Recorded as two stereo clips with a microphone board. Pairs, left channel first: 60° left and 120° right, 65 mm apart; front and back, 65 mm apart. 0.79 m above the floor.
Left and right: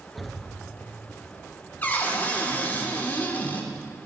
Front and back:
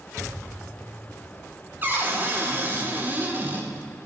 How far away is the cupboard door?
About 1.5 m.